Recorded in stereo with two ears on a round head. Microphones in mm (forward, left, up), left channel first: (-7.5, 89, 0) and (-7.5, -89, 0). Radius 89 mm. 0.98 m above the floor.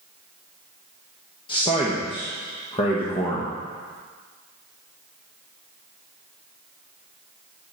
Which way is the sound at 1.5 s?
25° left (ahead or behind).